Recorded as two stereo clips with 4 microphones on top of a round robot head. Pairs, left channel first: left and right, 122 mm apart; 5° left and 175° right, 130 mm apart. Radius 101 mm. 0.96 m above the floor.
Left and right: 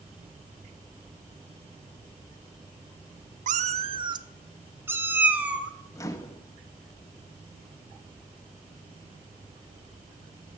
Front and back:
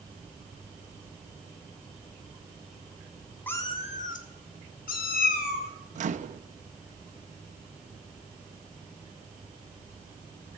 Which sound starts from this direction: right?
A cat meowing, at 3.5 s.